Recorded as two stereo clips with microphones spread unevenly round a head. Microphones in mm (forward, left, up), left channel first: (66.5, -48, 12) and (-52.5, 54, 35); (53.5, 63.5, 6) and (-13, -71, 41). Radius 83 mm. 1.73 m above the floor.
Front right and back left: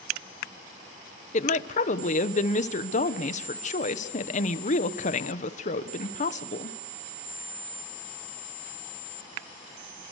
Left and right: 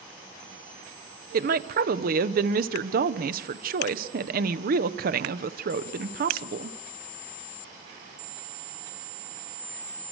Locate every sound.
1.3 s a woman speaking: 90° right, 1.4 m